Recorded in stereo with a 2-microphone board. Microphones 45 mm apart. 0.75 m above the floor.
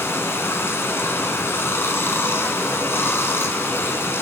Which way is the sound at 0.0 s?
65° left (ahead or behind).